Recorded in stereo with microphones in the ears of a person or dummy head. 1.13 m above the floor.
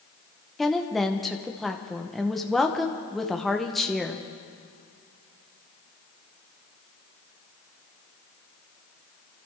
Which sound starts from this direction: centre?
A woman speaking, at 0.6 s.